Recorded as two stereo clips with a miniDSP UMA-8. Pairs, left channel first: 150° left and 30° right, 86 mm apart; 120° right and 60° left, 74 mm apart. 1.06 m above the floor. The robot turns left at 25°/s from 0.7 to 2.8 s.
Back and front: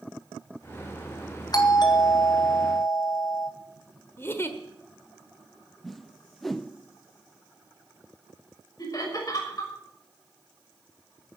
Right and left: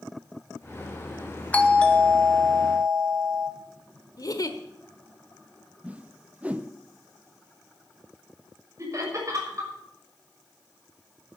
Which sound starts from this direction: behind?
A doorbell, at 1.5 s.